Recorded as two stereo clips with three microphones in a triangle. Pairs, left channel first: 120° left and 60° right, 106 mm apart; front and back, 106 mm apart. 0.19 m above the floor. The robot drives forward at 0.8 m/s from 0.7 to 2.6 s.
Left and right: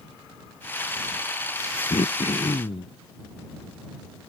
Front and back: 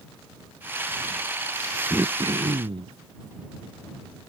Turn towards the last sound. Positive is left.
turn(degrees=145)